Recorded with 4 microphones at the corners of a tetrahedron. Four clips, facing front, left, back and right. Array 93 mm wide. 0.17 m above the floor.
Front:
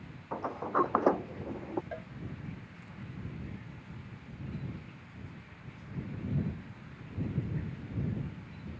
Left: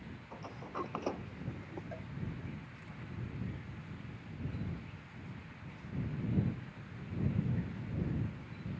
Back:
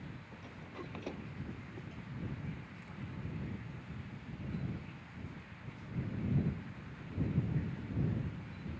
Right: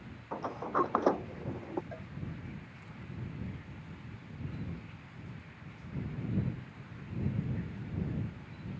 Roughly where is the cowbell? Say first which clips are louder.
Right 1 dB, front 8 dB; ahead.